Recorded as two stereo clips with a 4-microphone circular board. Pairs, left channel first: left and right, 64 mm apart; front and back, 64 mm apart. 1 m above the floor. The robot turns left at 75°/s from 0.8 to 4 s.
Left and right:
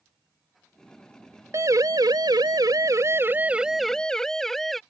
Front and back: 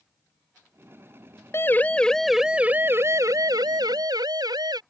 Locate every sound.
1.5 s a siren: 50° right; by 4.8 s 175° left